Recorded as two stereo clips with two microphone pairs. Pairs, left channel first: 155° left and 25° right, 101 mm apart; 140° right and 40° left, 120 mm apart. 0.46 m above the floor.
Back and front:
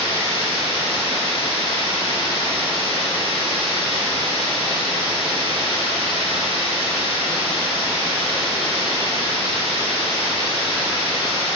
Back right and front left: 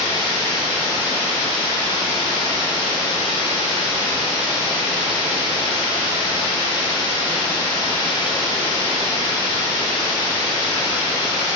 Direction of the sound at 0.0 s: 165° left.